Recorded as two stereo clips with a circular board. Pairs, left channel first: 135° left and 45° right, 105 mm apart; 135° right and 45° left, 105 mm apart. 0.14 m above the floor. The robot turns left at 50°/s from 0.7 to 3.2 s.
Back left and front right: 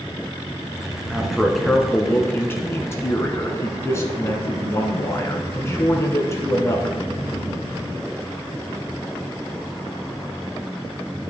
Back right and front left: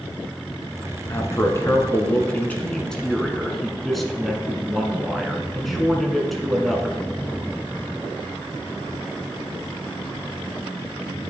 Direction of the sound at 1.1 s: 120° right.